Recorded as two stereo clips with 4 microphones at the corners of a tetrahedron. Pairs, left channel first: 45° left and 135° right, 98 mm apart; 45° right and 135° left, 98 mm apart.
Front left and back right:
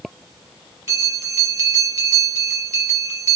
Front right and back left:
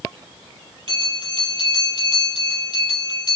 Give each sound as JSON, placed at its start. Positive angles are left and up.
{"t": 0.9, "sound": "a bell", "azimuth_deg": 170, "distance_m": 4.0}